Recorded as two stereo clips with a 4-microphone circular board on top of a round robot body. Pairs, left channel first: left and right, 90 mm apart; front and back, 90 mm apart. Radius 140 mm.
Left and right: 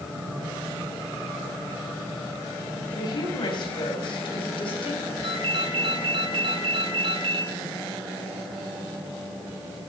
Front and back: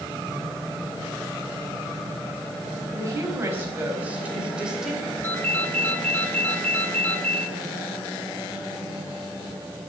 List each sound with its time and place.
2.9 s a woman speaking: 120° left, 4.5 m; by 5.1 s 95° left, 4 m
5.2 s a ringtone: 70° right, 2.5 m